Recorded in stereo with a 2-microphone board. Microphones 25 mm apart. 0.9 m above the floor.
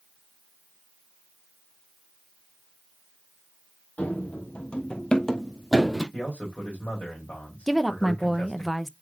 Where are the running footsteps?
65° left (ahead or behind), 1.9 m; by 6.0 s centre (ahead or behind), 2.0 m.